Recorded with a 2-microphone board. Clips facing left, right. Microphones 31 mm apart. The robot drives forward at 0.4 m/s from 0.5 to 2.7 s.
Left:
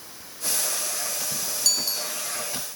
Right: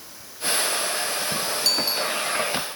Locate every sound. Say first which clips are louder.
1.6 s a bicycle bell: right 3 dB; 25° right (ahead or behind)